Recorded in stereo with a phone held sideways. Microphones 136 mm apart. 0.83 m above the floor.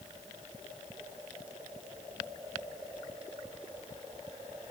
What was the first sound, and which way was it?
Only background noise.